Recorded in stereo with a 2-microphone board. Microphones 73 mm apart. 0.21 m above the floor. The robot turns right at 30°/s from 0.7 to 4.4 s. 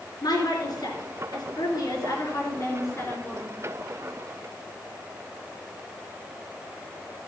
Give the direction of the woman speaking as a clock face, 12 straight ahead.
10 o'clock.